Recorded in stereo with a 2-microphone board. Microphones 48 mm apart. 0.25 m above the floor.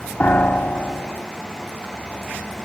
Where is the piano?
40° left (ahead or behind), 0.7 m.